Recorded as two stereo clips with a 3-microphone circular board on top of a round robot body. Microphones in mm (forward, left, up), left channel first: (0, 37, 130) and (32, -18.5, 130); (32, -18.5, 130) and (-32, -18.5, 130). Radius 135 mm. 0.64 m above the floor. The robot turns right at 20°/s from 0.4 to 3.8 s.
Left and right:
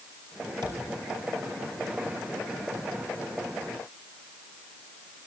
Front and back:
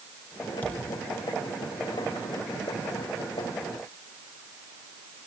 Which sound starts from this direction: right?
A thud, at 0.6 s.